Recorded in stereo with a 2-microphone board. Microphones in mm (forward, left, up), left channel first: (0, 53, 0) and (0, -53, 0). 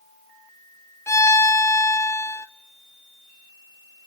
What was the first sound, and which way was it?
A violin, 25° left (ahead or behind).